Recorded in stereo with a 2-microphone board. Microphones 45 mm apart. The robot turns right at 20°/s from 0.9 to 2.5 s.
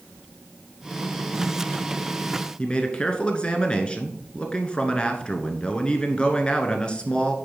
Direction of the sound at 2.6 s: 20° left (ahead or behind).